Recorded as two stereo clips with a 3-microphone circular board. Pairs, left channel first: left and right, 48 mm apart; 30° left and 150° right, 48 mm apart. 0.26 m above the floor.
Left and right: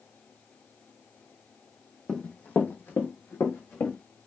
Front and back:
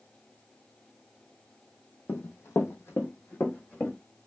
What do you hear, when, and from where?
2.1 s running footsteps: 15° left, 0.6 m; by 4.0 s 75° left, 1.1 m